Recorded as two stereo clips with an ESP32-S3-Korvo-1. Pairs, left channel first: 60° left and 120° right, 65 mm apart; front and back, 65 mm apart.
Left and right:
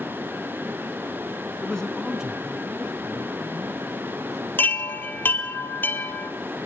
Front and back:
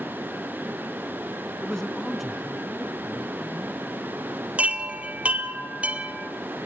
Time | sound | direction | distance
1.6 | a man speaking | 55° left | 1.0 m
4.6 | a chime | 115° left | 1.6 m